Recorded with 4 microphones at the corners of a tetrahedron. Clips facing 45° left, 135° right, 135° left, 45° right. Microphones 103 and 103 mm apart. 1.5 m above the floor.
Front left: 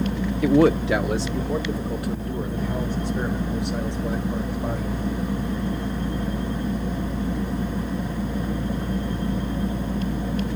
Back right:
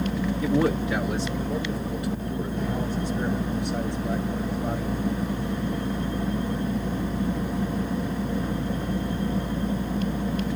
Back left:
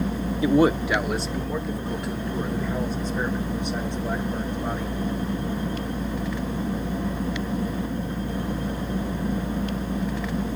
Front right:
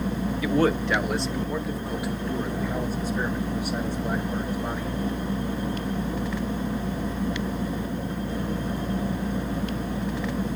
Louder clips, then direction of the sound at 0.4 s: Front left 7 dB, back left 4 dB; 70° left.